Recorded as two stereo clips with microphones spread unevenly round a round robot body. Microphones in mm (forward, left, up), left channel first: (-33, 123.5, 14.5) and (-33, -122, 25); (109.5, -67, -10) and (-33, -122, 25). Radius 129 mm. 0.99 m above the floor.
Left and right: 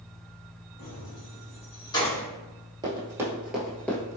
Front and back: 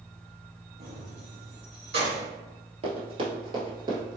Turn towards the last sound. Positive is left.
turn(degrees=165)